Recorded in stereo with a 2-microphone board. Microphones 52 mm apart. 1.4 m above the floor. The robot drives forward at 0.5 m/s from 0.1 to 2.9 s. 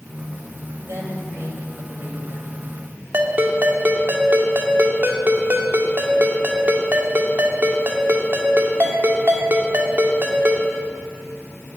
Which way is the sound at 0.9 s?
55° right (ahead or behind).